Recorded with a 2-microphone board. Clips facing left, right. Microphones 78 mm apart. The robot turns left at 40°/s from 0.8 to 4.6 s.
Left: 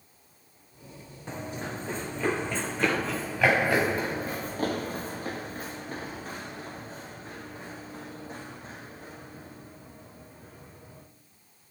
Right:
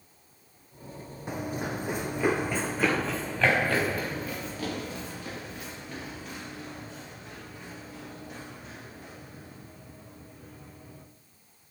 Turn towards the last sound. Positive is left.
turn(degrees=30)  # may be behind; listen again after turning